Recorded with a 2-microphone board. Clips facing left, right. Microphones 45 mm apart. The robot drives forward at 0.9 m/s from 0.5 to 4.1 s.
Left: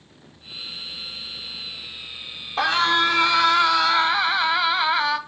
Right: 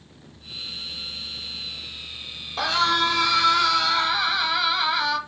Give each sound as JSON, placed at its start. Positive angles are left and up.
{"t": 2.6, "sound": "a scream", "side_deg": 25, "distance_m": 0.9}